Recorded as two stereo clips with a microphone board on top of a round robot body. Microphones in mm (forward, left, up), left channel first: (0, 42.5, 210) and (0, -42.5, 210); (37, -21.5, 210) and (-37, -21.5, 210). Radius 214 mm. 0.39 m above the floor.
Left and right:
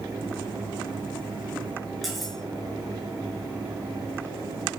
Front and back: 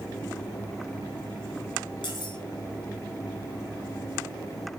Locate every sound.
2.0 s cutlery clinking: straight ahead, 5.5 m